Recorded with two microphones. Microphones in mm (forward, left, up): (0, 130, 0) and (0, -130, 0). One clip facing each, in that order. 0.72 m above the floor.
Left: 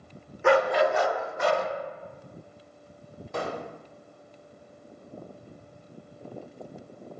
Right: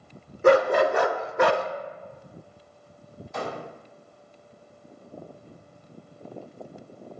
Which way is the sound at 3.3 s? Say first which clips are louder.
Left 1 dB; 60° left (ahead or behind).